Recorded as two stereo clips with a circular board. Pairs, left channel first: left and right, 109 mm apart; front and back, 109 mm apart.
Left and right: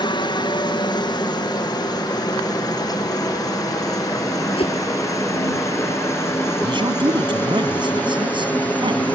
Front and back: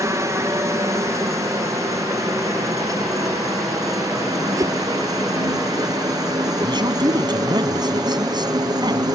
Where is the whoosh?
120° left.